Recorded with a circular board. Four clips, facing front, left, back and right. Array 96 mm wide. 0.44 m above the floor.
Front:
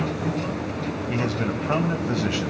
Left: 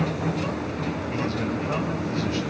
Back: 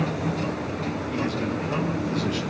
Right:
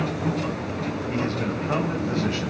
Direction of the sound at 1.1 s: Straight ahead.